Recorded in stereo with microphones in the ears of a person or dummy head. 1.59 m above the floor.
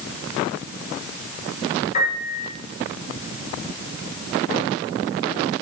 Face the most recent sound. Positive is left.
turn(degrees=35)  # may be behind; listen again after turning